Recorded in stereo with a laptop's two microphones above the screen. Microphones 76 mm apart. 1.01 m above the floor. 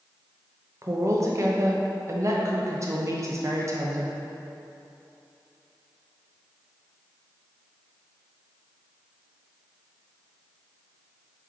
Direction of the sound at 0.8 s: 40° right (ahead or behind).